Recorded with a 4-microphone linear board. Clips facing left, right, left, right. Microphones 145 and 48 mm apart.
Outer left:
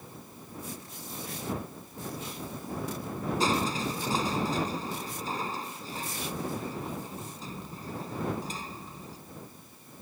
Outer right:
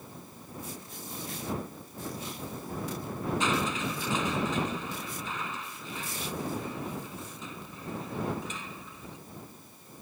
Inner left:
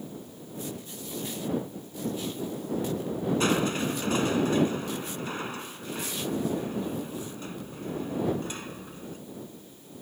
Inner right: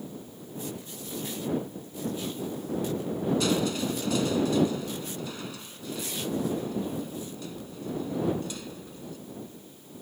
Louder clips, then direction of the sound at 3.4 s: Outer left 3 dB, inner left 1 dB; 40° left (ahead or behind).